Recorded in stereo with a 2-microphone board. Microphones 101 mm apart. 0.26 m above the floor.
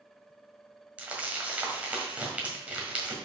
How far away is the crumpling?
About 1.6 m.